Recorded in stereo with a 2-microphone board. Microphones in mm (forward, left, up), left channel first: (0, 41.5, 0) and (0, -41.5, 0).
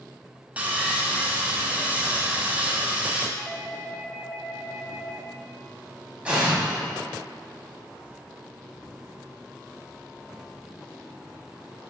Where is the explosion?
15° right (ahead or behind), 2.5 m.